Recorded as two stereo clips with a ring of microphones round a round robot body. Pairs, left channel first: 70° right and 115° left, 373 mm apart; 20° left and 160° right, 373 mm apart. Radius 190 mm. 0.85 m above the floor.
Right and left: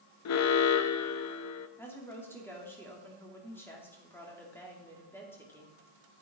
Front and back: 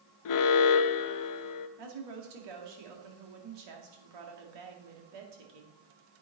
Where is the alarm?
20° right, 0.6 m.